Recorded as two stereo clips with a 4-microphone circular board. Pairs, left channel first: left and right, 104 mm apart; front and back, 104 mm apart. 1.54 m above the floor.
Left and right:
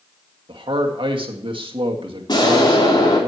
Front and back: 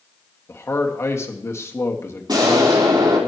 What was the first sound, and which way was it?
A man speaking, 65° right.